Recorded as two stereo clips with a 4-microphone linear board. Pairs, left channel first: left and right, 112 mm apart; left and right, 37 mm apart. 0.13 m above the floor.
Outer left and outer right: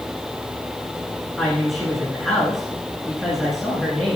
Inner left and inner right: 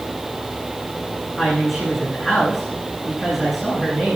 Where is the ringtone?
I don't hear a ringtone.